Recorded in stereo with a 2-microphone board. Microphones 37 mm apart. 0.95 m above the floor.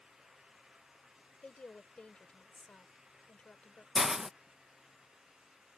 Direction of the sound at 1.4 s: 35° left (ahead or behind).